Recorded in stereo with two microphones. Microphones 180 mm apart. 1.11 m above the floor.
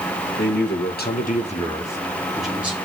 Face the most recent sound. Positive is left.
turn(degrees=-10)  # may be behind; listen again after turning